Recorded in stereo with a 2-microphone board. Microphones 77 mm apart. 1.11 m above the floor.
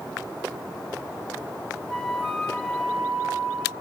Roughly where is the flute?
Centre.